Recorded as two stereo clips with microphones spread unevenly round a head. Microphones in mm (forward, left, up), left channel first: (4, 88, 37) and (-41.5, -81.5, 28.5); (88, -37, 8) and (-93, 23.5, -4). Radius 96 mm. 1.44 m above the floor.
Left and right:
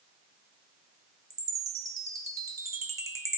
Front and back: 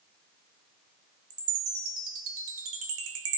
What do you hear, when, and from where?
1.3 s a chime: 175° right, 1.4 m